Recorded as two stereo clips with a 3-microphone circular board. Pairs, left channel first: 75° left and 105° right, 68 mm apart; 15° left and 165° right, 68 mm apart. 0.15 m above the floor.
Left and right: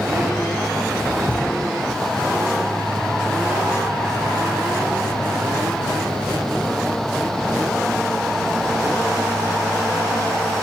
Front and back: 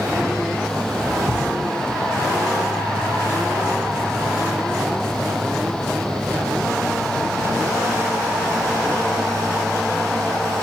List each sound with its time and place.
1.3 s a thud: 150° left, 9 m